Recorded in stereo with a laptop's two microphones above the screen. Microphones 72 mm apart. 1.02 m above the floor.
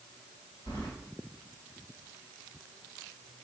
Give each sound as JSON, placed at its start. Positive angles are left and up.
{"t": 0.7, "sound": "keys jangling", "side_deg": 75, "distance_m": 2.5}